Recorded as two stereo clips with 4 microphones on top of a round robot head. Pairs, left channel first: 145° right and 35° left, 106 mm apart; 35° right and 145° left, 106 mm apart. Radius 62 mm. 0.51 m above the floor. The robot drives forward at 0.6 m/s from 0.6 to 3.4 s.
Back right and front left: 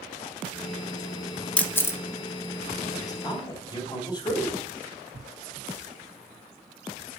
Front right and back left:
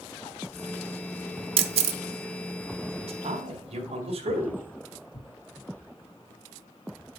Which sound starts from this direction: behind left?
A camera shutter, at 1.6 s.